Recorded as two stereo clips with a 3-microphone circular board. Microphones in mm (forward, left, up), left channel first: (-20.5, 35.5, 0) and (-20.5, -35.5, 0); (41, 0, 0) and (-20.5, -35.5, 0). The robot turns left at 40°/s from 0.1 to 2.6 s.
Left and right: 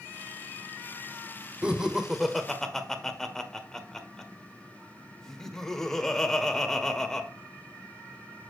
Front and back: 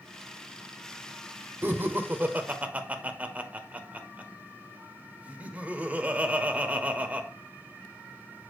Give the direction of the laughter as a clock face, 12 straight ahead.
5 o'clock.